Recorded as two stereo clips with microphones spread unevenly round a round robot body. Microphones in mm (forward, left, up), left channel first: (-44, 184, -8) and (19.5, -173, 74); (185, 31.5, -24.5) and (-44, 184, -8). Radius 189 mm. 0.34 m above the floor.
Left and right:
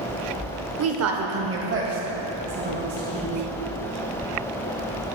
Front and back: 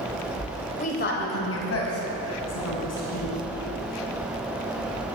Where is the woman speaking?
50° right, 1.0 m; by 3.4 s 15° right, 4 m.